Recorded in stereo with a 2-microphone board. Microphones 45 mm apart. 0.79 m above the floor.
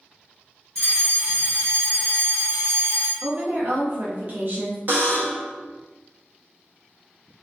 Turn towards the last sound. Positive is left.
turn(degrees=-40)  # may be behind; listen again after turning